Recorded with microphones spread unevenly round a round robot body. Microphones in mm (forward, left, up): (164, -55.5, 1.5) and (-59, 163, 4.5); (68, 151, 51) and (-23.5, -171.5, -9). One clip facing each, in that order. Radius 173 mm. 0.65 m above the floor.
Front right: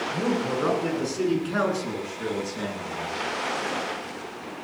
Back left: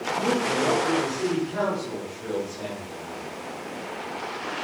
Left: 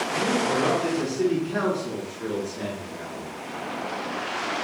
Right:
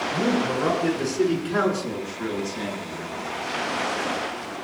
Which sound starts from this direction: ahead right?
A man speaking, at 0.1 s.